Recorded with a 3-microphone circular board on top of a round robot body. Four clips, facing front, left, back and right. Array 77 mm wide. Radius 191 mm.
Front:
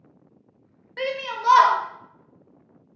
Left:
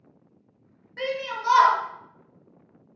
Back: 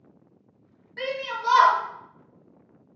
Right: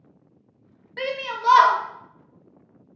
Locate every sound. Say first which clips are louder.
1.0 s a shout: right 1 dB, front 2 dB; 50° right, 0.9 m